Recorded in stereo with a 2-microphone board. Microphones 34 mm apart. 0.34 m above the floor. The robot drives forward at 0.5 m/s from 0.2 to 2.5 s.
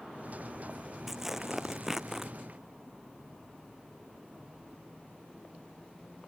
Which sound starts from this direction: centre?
Tearing paper, at 1.1 s.